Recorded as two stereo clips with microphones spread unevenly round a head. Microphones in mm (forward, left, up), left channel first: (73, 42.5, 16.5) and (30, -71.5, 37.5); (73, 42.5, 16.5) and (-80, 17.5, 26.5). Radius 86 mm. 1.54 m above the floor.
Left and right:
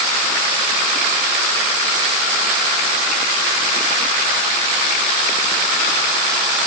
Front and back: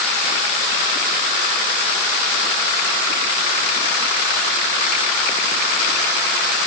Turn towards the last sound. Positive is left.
No sound to turn to.